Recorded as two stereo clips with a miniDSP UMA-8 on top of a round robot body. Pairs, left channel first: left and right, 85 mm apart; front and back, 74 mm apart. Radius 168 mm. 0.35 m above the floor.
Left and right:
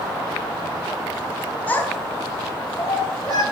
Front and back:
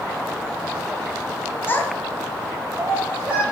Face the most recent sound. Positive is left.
turn(degrees=115)